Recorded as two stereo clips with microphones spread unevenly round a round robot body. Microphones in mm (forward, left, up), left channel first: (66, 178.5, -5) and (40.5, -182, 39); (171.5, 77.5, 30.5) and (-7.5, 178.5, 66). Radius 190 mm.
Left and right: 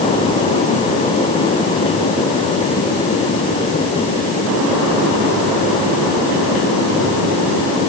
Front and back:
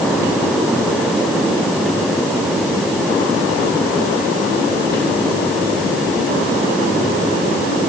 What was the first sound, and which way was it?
Only background noise.